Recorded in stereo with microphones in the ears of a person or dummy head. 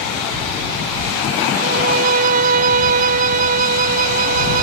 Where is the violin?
40° right (ahead or behind).